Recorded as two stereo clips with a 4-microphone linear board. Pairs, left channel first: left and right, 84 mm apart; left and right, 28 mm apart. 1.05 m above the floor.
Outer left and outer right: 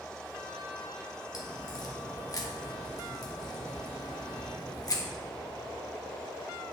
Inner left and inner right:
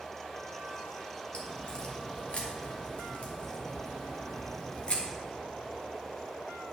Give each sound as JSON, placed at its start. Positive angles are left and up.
{"t": 1.3, "sound": "a crack", "side_deg": 45, "distance_m": 1.4}